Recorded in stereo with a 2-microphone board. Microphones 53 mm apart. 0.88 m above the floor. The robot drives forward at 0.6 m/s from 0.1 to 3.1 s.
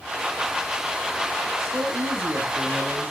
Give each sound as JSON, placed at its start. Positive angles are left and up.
{"t": 1.6, "sound": "a man speaking", "side_deg": -55, "distance_m": 0.9}